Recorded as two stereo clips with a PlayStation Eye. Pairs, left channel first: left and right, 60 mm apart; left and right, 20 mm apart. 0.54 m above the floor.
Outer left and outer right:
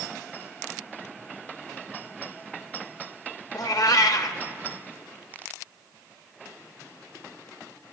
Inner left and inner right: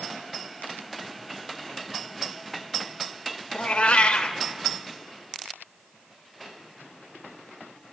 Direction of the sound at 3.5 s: 75° left (ahead or behind).